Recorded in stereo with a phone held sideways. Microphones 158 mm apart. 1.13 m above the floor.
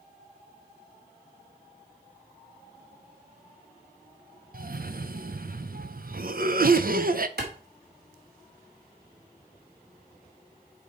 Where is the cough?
60° right (ahead or behind), 0.7 m.